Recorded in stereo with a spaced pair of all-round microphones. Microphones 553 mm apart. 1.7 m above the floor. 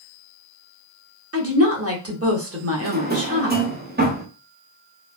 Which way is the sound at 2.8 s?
20° right (ahead or behind).